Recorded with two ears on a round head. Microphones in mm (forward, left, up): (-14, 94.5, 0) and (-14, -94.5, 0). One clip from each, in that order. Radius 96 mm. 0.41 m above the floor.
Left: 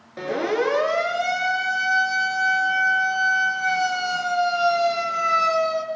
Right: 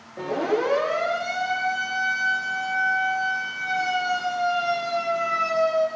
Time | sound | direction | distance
0.2 | a siren | 65° left (ahead or behind) | 8.5 m